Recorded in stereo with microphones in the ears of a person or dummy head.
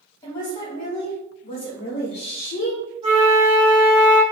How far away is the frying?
I don't hear frying.